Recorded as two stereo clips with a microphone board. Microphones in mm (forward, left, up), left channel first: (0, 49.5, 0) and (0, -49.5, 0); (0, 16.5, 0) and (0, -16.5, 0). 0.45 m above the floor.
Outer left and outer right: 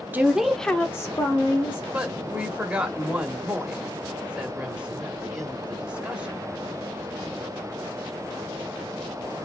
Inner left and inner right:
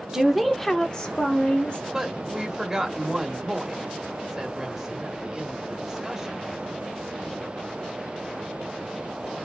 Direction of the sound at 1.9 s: 10° right (ahead or behind).